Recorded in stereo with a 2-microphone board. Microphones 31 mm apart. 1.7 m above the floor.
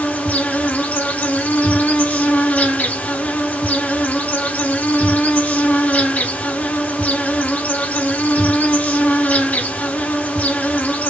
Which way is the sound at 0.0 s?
75° left (ahead or behind).